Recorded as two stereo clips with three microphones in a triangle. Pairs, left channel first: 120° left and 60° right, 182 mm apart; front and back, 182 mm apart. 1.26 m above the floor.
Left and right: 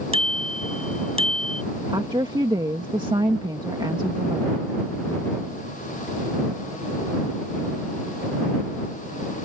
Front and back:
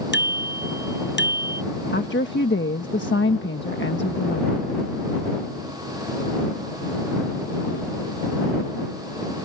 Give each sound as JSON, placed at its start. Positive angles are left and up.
{"t": 0.1, "sound": "a bicycle bell", "azimuth_deg": -5}
{"t": 1.9, "sound": "a woman speaking", "azimuth_deg": 5}